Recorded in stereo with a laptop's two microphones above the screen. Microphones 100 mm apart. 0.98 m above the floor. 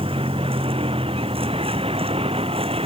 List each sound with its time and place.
0.0 s a vehicle: 70° right (ahead or behind); by 2.9 s 75° right (ahead or behind)